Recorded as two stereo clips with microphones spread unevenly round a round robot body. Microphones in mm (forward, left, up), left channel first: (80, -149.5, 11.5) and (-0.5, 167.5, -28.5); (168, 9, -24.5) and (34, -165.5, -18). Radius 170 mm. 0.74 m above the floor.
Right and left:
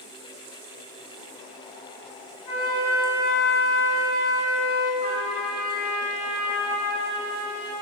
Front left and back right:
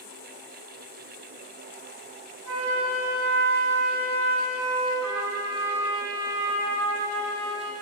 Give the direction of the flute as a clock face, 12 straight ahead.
4 o'clock.